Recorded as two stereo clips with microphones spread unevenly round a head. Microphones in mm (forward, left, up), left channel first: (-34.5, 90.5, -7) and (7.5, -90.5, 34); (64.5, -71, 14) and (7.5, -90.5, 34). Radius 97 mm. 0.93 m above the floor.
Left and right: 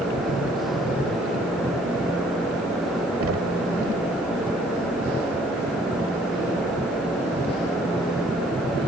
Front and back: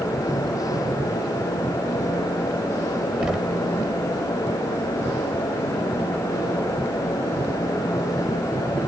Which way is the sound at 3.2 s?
85° right.